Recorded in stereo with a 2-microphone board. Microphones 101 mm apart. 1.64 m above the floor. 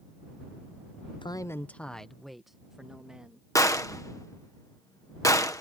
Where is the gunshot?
30° left (ahead or behind).